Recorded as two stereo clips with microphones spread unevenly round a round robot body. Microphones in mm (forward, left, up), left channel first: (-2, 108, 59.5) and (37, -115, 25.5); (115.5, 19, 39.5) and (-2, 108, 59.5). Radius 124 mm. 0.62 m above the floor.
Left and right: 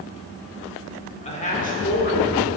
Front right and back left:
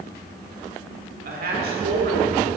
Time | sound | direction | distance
1.2 | a woman speaking | 165° left | 2 m